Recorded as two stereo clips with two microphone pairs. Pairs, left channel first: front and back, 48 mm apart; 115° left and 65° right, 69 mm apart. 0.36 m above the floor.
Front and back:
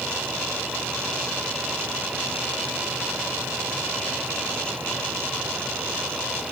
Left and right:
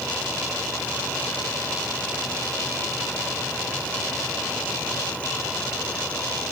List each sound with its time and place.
Only background noise.